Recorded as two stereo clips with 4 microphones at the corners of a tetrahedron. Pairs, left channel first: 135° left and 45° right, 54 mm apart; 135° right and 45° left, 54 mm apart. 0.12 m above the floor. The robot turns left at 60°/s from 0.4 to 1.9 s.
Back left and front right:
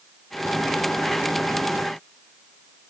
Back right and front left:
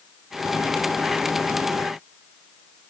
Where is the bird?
No bird in this recording.